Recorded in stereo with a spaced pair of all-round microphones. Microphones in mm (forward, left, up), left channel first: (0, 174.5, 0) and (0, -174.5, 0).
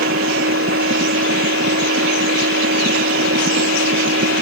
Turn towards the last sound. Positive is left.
turn(degrees=-40)  # may be behind; listen again after turning